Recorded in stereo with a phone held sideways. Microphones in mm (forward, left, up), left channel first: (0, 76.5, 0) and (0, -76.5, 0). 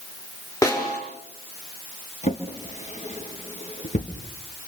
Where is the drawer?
50° left (ahead or behind), 3 m.